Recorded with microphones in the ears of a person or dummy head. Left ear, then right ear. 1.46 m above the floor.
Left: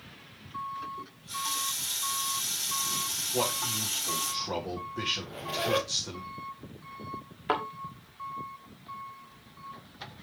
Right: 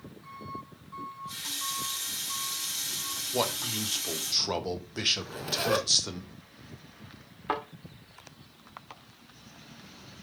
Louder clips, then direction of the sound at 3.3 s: Right 1 dB; 75° right (ahead or behind).